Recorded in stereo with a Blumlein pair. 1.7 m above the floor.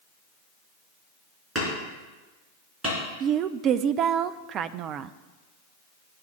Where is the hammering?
10° right, 4.5 m.